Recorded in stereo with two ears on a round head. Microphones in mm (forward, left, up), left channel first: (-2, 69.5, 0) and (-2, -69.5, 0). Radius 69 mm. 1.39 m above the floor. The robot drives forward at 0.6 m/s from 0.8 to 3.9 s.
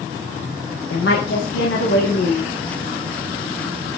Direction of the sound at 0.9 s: 75° left (ahead or behind).